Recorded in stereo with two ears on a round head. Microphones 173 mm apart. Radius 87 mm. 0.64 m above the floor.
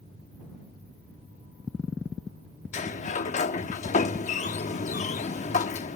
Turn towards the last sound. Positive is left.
turn(degrees=40)  # may be behind; listen again after turning